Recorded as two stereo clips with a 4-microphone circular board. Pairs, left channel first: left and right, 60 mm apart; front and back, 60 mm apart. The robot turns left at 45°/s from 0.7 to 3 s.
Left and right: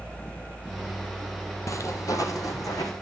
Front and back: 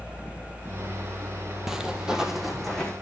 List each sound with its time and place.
1.7 s footsteps: 100° left, 0.8 m; by 2.9 s 80° left, 2 m